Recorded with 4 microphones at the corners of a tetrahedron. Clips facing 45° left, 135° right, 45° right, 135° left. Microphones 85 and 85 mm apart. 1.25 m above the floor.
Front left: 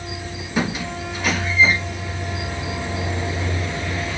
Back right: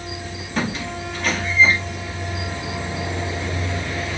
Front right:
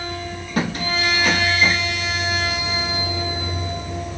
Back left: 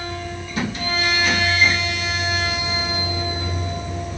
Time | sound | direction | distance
0.6 | a squeak | 35° right | 1.0 m